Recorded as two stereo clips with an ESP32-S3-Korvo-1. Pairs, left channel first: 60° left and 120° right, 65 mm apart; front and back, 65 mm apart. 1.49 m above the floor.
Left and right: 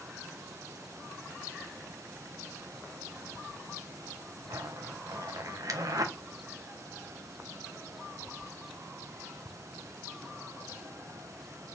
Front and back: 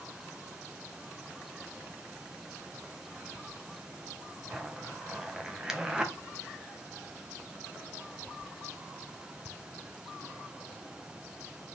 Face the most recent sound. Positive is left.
turn(degrees=-100)